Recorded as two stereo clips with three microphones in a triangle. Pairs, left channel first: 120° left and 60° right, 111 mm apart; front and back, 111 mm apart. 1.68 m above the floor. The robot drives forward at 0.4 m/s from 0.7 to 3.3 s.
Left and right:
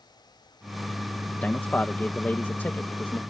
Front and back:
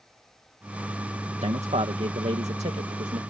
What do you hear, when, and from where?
1.4 s a man speaking: 165° right; by 3.2 s 170° right